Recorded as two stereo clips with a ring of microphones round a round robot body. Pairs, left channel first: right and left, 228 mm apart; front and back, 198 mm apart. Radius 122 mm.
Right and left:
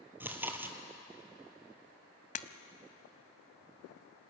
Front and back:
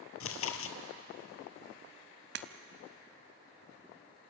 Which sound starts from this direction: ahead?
Chewing, at 0.2 s.